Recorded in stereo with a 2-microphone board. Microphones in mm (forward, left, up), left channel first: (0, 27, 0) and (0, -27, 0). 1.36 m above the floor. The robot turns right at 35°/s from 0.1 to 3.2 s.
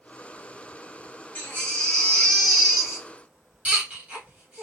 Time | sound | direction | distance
1.4 | a baby crying | 35° left (ahead or behind) | 1.5 m